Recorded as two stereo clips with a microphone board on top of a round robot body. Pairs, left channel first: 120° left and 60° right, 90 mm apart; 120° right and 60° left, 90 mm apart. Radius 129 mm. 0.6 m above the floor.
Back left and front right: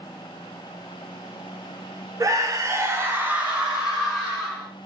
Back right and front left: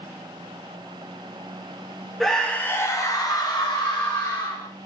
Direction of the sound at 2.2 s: 35° right.